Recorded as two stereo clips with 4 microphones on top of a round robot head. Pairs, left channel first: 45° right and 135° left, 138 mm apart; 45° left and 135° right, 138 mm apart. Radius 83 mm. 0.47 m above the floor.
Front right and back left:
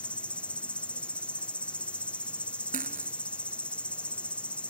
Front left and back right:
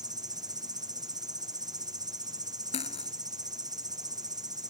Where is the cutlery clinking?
95° left.